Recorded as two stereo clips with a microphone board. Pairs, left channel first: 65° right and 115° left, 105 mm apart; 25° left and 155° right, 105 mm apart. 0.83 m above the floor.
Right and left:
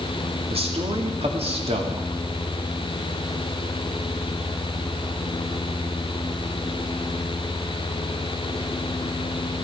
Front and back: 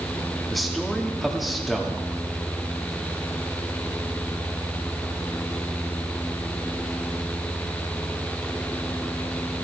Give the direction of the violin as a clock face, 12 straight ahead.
I don't hear a violin.